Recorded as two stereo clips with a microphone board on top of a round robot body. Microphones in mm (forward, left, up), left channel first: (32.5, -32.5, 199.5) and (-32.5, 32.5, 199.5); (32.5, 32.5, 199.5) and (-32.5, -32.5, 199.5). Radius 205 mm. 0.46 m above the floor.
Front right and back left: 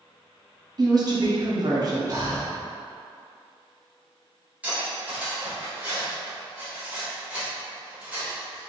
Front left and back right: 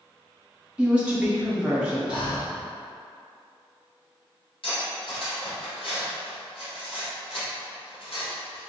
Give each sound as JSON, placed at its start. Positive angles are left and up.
{"t": 0.8, "sound": "a woman speaking", "azimuth_deg": 150, "distance_m": 1.3}
{"t": 2.1, "sound": "breathing", "azimuth_deg": 80, "distance_m": 0.7}
{"t": 4.6, "sound": "cutlery clinking", "azimuth_deg": 60, "distance_m": 1.8}